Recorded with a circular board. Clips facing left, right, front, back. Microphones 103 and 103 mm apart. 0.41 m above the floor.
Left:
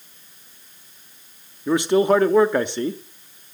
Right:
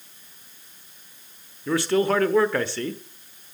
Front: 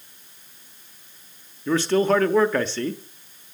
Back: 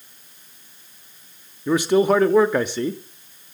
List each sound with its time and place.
1.7 s a man speaking: 125° left, 0.8 m